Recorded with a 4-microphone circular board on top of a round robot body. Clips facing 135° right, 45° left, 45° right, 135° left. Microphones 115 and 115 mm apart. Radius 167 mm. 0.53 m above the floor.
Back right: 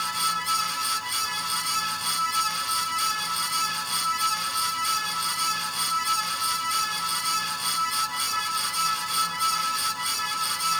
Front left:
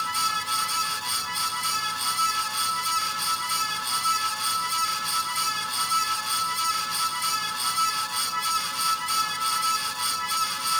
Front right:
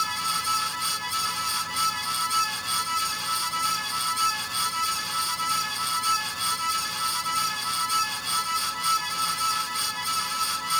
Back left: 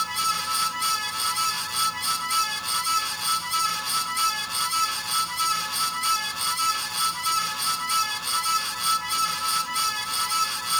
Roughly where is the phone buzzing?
I don't hear a phone buzzing.